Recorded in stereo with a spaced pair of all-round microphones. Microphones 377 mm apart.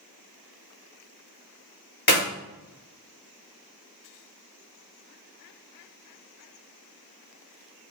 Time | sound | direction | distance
2.1 | a clap | 90° left | 4 m